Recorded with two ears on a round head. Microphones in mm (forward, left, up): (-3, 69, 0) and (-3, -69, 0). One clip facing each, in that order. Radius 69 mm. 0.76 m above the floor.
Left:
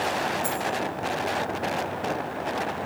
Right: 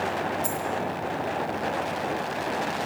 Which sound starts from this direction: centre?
A dropped coin, at 0.4 s.